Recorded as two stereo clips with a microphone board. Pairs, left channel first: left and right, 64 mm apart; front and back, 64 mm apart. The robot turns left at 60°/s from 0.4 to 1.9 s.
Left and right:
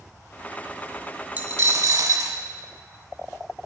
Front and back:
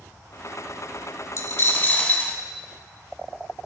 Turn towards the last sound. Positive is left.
turn(degrees=-60)